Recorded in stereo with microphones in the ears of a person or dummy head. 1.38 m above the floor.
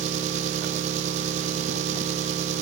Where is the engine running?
40° right (ahead or behind), 1.8 m.